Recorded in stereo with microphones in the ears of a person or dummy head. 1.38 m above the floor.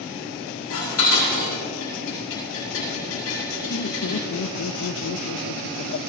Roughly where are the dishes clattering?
Left.